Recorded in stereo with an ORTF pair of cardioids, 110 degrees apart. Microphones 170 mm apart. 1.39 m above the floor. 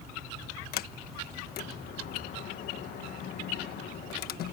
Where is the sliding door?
70° left.